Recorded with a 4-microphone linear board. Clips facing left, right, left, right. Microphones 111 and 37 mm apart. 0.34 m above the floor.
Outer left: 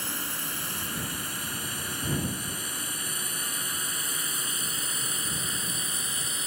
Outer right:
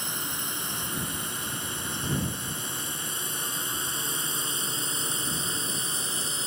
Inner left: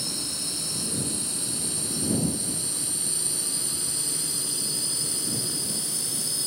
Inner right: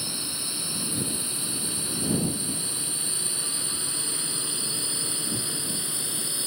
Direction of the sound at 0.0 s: 20° right (ahead or behind).